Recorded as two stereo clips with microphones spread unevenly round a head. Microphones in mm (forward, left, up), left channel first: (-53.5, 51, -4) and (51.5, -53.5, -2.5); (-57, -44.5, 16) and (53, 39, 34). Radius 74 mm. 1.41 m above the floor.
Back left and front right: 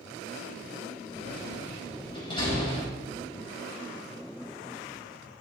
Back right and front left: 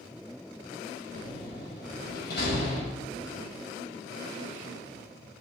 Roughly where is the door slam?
Behind.